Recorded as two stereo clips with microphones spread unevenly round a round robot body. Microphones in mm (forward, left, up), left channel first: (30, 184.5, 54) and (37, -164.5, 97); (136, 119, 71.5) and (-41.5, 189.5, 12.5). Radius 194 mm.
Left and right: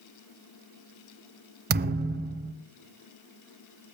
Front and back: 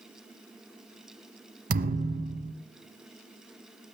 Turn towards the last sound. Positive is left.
turn(degrees=-155)